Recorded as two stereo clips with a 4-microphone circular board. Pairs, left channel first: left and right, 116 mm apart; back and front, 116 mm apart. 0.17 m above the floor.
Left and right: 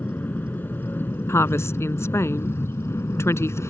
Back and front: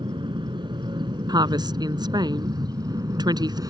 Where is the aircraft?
20° left; by 3.7 s 35° left.